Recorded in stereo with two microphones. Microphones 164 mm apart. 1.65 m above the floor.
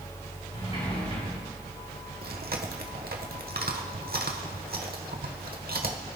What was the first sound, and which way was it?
A sliding door, 40° left (ahead or behind).